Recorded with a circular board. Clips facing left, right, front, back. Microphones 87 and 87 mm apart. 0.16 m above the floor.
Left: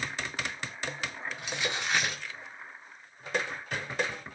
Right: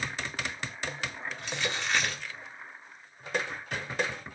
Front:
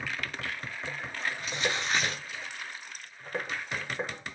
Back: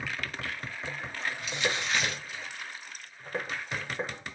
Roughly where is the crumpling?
Ahead.